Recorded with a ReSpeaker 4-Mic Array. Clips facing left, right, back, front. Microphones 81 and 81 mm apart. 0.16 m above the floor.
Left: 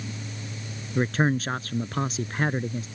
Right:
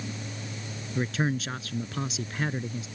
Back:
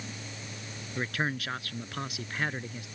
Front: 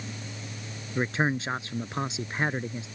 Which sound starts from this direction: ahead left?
A man speaking, at 0.9 s.